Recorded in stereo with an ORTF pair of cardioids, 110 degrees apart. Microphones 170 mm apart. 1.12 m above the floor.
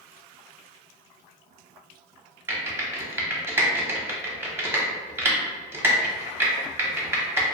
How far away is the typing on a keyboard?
About 0.7 m.